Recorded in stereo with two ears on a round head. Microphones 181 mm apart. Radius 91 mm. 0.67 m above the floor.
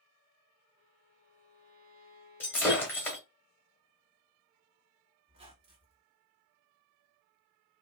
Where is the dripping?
I don't hear dripping.